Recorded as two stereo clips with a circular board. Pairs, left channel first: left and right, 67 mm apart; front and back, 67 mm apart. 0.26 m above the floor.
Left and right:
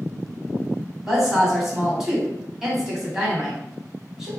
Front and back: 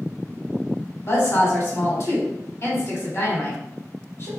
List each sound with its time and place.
1.1 s a woman speaking: 5° right, 1.4 m